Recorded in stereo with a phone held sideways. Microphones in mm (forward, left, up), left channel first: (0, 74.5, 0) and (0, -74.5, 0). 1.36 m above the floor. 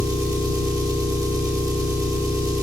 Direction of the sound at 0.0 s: 25° right (ahead or behind).